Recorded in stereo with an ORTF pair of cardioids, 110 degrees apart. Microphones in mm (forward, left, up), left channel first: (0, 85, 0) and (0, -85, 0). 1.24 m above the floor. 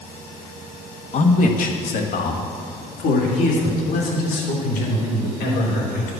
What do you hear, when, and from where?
1.1 s a man speaking: 45° left, 1.4 m; by 6.1 s 75° left, 4.5 m